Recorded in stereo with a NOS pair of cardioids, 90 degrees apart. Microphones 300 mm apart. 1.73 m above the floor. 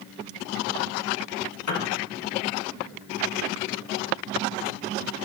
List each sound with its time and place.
1.7 s a piano: 65° left, 1.7 m